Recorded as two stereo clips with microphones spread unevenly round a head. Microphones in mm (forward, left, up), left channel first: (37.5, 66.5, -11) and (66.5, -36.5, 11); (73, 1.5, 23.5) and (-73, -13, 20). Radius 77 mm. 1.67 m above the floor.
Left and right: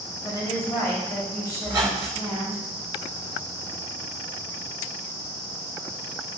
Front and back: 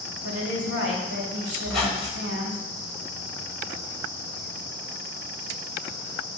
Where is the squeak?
80° right, 1.9 m.